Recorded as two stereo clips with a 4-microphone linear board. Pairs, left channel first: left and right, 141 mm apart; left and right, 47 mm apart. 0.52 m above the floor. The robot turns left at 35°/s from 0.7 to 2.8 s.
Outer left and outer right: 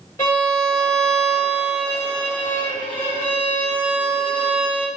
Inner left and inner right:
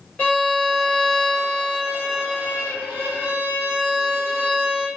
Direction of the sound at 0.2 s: 25° left.